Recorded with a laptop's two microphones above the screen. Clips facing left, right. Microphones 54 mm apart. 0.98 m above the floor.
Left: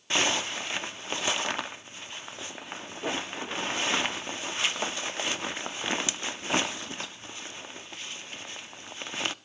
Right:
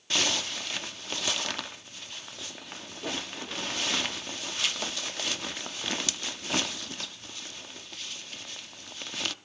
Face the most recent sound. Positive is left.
turn(degrees=25)  # may be behind; listen again after turning